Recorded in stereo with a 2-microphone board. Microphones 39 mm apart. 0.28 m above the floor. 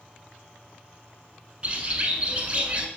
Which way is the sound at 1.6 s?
25° right (ahead or behind).